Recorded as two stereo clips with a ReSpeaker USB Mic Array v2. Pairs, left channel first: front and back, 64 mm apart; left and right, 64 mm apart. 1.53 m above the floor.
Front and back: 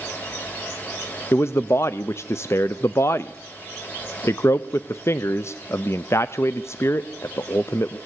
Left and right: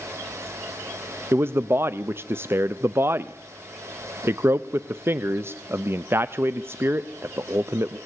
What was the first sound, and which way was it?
A man speaking, 40° right.